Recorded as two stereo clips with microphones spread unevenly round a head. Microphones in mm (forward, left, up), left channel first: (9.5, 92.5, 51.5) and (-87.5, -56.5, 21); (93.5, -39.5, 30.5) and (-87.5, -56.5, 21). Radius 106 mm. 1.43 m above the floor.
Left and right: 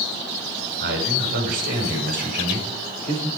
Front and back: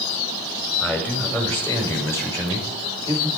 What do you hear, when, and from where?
0.8 s a man speaking: 75° right, 4.5 m; by 3.3 s 65° right, 5.5 m